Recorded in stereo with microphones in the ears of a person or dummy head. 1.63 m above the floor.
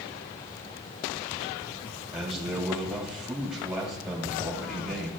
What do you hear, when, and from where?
2.1 s a man speaking: 5° right (ahead or behind), 2.5 m